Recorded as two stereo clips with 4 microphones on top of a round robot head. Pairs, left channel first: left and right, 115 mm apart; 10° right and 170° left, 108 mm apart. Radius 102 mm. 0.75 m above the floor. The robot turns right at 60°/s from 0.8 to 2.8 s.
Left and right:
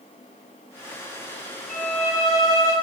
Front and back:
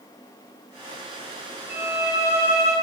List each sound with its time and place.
1.7 s a violin: 100° left, 3 m; by 2.7 s 165° left, 3 m